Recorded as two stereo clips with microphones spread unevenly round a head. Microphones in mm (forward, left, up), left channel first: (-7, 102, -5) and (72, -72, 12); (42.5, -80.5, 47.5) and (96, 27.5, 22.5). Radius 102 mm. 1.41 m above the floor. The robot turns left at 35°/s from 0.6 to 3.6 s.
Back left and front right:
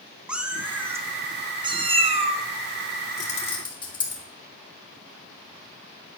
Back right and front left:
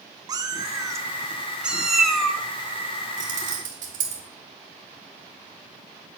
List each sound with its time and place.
0.3 s a cat meowing: 10° left, 1.0 m; by 2.4 s 55° right, 1.0 m
3.2 s keys jangling: 60° left, 2.5 m; by 4.2 s 45° left, 2.5 m